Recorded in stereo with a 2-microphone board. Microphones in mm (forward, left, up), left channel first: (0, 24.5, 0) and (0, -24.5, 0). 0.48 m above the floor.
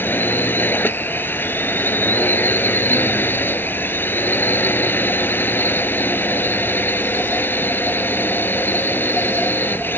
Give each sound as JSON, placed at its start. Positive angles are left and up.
{"t": 0.0, "sound": "a drone", "side_deg": 40}